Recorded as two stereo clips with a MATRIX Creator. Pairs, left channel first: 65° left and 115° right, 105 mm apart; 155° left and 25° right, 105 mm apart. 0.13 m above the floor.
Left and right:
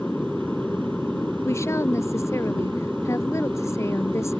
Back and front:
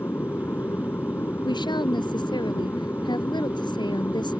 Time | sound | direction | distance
0.0 | an aircraft | 140° left | ?
1.4 | a woman speaking | 125° left | ?